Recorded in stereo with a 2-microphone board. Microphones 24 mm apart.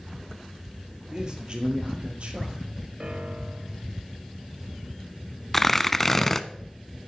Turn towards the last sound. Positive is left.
turn(degrees=10)  # may be behind; listen again after turning